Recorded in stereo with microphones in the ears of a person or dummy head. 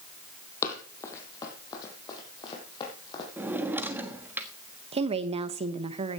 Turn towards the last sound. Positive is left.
turn(degrees=-35)  # may be behind; listen again after turning